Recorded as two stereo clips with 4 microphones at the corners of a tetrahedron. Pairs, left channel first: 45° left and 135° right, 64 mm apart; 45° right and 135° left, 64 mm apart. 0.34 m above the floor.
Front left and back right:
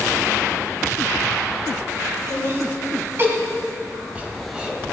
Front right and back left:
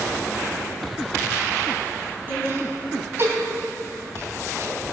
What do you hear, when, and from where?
2.3 s laughter: 175° right, 3 m; by 4.8 s 150° left, 2 m